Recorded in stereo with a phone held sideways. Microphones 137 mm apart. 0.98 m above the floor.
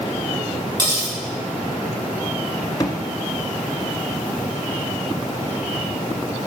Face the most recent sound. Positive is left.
turn(degrees=25)  # may be behind; listen again after turning